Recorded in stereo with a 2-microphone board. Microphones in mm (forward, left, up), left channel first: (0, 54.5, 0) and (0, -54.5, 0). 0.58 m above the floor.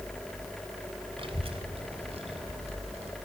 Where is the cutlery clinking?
I don't hear cutlery clinking.